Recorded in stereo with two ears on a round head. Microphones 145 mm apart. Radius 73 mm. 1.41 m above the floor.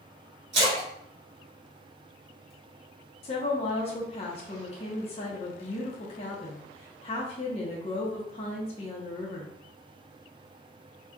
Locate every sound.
0.5 s a splash: 40° right (ahead or behind), 1.4 m
3.2 s a woman speaking: 40° left (ahead or behind), 0.7 m